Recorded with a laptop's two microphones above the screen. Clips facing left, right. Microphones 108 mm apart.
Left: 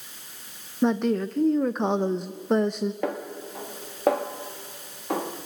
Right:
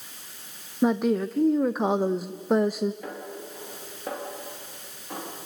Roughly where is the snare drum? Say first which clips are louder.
Left 7 dB; left.